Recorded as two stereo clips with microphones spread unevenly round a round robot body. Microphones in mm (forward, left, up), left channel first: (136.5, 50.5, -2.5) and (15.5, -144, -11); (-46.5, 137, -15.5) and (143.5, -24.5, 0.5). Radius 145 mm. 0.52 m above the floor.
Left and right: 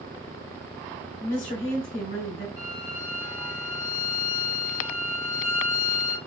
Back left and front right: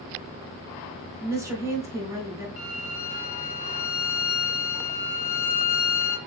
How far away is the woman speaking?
About 1.7 m.